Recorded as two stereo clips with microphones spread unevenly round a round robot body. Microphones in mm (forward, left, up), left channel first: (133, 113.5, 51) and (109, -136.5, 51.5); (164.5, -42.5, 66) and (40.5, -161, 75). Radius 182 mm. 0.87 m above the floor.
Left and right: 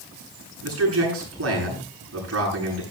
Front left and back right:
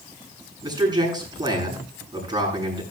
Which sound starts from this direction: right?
A man speaking, at 0.6 s.